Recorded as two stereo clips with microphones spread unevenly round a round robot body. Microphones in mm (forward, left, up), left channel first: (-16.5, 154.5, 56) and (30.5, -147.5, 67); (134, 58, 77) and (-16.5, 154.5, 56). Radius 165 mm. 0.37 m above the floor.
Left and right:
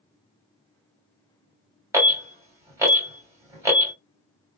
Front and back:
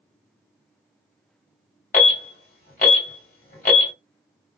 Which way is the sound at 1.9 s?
Straight ahead.